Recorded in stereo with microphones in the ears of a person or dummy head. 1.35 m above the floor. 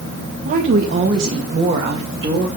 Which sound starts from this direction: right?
A woman speaking, at 0.5 s.